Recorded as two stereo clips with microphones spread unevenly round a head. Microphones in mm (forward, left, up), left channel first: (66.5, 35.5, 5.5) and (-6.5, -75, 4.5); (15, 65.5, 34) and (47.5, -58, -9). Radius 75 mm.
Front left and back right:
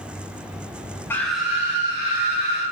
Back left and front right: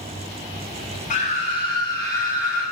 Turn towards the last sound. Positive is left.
turn(degrees=-170)